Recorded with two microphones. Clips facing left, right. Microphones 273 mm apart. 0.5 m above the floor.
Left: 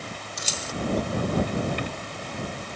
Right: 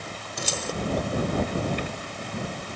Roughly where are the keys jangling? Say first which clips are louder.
Right 7 dB; right.